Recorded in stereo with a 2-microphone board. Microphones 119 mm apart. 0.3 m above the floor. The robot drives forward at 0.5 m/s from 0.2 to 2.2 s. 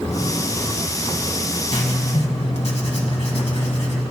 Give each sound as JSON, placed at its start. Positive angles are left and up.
{"t": 1.7, "sound": "writing", "side_deg": 60, "distance_m": 1.9}